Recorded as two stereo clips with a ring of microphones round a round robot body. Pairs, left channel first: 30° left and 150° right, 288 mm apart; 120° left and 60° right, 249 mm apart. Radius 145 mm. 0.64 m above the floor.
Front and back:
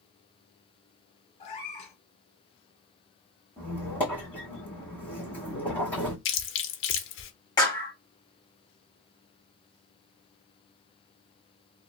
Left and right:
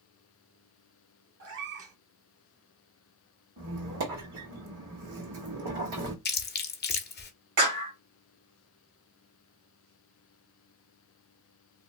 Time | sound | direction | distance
1.4 | a cat meowing | 40° right | 1.0 m
3.6 | a squeak | 55° right | 1.3 m
6.2 | chewing | 75° left | 0.7 m
7.6 | a clap | 45° right | 1.8 m